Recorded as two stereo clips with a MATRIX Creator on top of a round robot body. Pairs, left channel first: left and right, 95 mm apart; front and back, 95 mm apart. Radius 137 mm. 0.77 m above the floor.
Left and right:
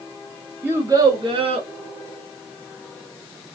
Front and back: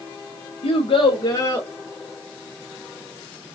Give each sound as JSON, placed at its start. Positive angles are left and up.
{"t": 0.6, "sound": "a child speaking", "azimuth_deg": -15, "distance_m": 0.8}